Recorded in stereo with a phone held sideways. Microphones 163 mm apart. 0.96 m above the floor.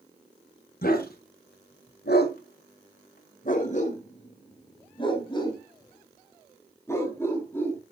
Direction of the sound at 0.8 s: 65° left (ahead or behind).